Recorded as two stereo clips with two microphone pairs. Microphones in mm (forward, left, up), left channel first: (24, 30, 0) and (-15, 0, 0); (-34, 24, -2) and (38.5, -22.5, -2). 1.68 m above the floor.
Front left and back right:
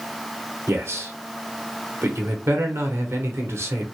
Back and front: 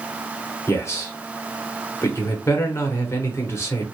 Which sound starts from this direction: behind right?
A man speaking, at 0.7 s.